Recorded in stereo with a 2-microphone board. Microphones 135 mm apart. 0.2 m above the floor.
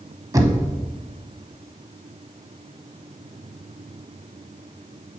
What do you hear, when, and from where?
0.3 s knocking: 25° right (ahead or behind), 0.8 m